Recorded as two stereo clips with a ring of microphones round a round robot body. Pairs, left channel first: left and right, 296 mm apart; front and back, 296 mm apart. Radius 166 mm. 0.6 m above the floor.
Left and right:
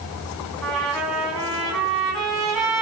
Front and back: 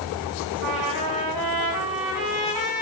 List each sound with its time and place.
0.6 s a trumpet: straight behind, 3.5 m